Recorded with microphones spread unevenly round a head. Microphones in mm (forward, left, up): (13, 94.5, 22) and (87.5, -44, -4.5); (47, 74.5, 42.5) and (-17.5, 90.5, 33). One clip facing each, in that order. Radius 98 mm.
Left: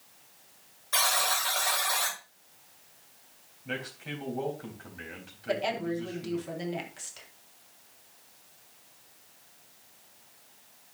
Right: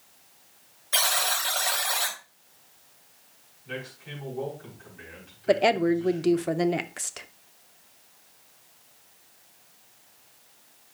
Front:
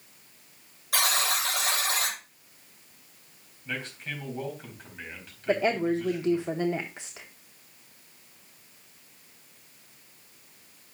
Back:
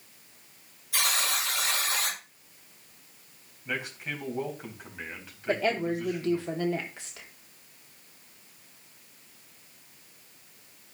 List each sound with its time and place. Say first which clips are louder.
0.9 s a buzzer: right 1 dB, front 2 dB; straight ahead, 7 m
3.6 s a man speaking: left 1 dB, back 2 dB; 90° left, 3.5 m
5.5 s a woman speaking: right 9 dB, front 2 dB; 80° right, 0.7 m